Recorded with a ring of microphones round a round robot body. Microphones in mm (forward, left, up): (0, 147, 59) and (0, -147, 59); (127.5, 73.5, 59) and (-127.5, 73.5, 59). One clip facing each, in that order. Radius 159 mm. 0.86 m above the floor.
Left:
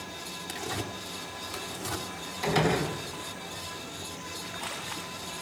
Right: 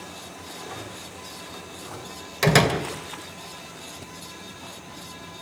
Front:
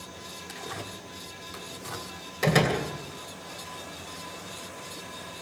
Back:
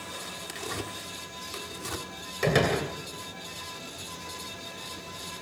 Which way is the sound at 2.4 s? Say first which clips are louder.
Right 5 dB, even; 90° right.